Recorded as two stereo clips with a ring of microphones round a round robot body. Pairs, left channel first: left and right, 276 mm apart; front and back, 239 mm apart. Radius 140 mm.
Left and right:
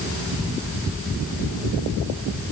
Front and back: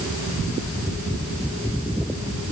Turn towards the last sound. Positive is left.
No sound to turn to.